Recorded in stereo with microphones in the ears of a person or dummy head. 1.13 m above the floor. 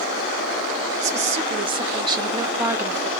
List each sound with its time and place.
1.0 s a woman speaking: 35° right (ahead or behind), 2 m; by 3.1 s centre (ahead or behind), 1.6 m